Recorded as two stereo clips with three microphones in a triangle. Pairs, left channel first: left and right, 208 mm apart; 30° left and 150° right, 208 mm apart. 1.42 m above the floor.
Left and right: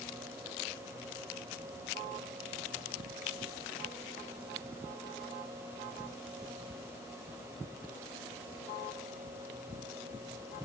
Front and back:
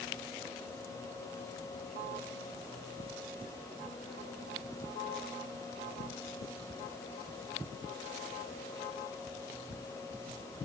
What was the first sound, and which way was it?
Only background noise.